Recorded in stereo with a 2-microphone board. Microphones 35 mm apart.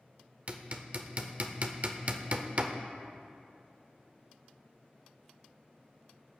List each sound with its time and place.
0.5 s hammering: 40° right (ahead or behind), 0.7 m